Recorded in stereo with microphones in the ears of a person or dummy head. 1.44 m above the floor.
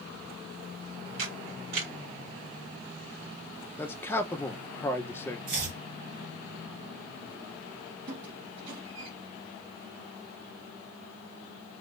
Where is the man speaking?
10° left (ahead or behind), 0.7 m.